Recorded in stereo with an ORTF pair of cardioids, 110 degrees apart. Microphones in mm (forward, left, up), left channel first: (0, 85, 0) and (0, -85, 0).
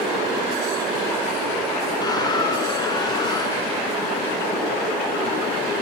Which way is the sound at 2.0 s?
25° left.